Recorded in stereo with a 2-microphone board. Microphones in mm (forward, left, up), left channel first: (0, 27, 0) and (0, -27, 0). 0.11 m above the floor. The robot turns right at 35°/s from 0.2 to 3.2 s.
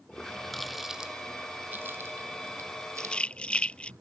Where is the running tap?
15° left (ahead or behind); by 4.0 s 70° right (ahead or behind).